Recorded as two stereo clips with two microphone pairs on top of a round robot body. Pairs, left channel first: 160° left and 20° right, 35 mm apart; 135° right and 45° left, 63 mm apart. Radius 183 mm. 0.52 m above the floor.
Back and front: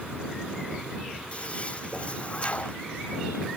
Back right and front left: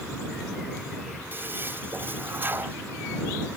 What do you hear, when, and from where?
1.3 s a toilet flushing: 100° left